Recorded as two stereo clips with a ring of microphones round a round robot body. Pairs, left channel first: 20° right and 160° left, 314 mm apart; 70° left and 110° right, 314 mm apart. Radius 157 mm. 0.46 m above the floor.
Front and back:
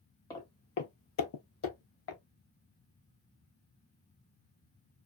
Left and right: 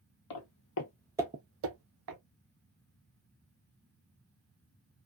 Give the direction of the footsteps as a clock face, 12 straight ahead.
10 o'clock.